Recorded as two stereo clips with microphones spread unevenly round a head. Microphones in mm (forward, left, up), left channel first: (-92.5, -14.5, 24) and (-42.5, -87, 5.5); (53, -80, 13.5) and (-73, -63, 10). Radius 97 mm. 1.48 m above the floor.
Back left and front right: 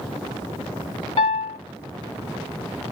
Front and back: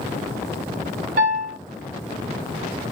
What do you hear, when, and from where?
1.2 s a piano: 125° left, 2.5 m